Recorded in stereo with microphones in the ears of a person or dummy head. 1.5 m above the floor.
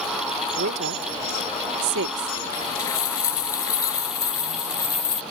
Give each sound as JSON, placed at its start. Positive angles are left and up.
{"t": 0.6, "sound": "a woman speaking", "side_deg": -60}
{"t": 2.5, "sound": "a dropped coin", "side_deg": 20}